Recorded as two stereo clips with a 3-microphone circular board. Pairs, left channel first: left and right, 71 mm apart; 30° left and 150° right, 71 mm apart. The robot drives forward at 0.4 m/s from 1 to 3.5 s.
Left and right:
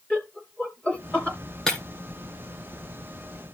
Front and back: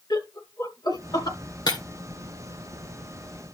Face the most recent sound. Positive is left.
turn(degrees=15)